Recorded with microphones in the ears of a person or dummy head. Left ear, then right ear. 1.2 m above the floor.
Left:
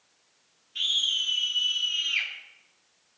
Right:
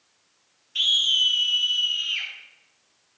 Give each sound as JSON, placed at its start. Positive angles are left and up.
{"t": 0.8, "sound": "a scream", "side_deg": -20, "distance_m": 3.0}